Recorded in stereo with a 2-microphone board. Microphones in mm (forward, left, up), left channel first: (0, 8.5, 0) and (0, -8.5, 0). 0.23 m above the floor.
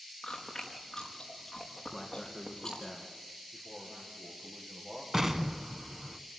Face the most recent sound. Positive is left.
turn(degrees=-25)  # may be behind; listen again after turning